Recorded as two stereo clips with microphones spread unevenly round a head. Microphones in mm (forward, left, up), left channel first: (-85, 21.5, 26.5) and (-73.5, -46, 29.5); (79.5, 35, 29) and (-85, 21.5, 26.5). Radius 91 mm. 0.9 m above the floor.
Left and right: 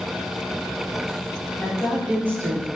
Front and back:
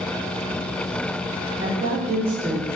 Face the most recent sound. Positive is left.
turn(degrees=-95)